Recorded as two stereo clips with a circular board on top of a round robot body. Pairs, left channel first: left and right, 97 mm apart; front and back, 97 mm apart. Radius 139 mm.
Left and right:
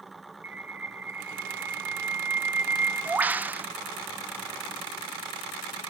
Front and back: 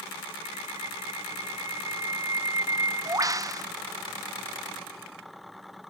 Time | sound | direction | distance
0.4 | a bird | 155° right | 0.9 m